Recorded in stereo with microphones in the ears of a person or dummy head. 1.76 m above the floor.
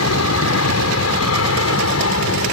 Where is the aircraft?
75° left (ahead or behind); by 2.5 s 70° left (ahead or behind).